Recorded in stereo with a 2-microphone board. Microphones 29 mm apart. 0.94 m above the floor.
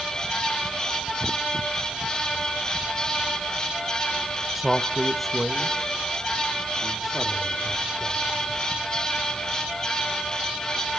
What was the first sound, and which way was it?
A man speaking, 5° right (ahead or behind).